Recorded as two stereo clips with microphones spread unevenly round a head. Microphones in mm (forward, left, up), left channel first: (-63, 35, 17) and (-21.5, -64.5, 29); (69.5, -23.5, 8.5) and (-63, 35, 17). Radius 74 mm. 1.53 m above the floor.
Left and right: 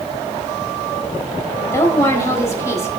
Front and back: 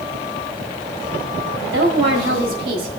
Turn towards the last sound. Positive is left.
turn(degrees=175)